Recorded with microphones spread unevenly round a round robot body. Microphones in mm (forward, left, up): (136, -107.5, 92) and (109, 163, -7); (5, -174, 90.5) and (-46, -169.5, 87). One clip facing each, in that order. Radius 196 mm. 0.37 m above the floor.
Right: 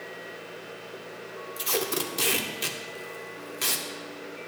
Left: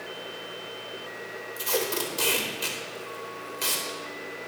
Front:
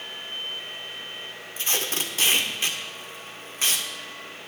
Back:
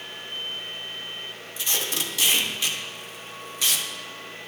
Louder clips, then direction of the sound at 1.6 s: Left 1 dB, front 1 dB; 10° right.